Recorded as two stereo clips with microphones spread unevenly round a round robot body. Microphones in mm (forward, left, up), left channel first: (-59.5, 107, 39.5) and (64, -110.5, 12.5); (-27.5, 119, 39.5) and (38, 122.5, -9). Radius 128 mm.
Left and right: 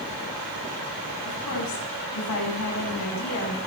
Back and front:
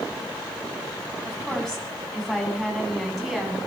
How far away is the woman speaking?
About 7 m.